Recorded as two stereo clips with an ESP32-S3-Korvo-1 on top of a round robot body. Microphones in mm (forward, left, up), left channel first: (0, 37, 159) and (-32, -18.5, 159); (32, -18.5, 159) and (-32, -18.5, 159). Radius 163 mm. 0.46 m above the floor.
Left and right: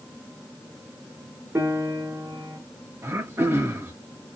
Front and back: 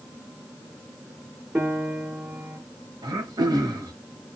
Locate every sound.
1.6 s a piano: 145° right, 2 m
3.0 s throat clearing: 175° right, 1.0 m